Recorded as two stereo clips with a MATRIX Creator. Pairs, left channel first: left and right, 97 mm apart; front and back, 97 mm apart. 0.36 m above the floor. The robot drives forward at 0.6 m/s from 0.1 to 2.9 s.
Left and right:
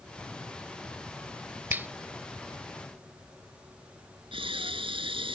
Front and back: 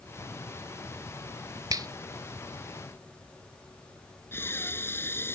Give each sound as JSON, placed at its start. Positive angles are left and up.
{"t": 1.7, "sound": "a finger snap", "azimuth_deg": -150}
{"t": 4.3, "sound": "breathing", "azimuth_deg": -65}